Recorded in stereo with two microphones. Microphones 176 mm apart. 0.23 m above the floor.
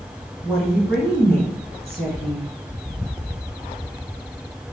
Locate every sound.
0.4 s a woman speaking: centre (ahead or behind), 2 m